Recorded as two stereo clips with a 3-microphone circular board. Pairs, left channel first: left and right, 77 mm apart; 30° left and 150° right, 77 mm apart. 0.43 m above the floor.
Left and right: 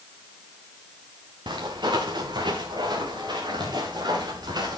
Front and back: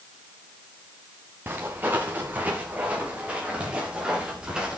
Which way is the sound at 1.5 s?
90° right.